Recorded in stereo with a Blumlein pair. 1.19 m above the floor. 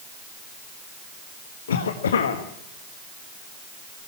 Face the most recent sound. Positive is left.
turn(degrees=65)